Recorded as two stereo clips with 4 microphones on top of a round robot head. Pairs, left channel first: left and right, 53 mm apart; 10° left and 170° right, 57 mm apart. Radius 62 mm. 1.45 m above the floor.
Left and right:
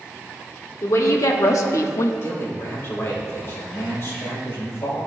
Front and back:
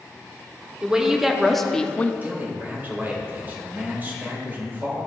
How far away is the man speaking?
About 2 m.